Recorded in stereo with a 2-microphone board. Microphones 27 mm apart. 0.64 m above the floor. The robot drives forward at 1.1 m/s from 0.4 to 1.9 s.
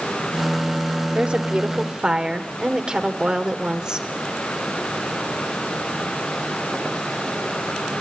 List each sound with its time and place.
1.1 s a woman speaking: 40° right (ahead or behind), 1.4 m; by 4.1 s 30° right (ahead or behind), 2.0 m